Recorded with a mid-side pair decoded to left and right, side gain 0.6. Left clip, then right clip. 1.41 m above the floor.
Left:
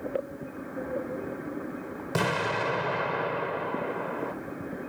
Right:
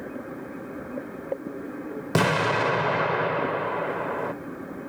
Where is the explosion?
35° right, 0.9 m.